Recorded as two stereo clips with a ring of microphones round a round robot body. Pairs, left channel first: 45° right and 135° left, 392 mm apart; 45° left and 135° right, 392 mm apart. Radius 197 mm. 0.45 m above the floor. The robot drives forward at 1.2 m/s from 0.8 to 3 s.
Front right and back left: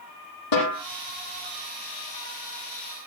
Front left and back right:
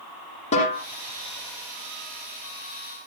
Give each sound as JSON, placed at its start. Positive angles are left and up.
{"t": 0.5, "sound": "a snare drum", "azimuth_deg": -30, "distance_m": 8.0}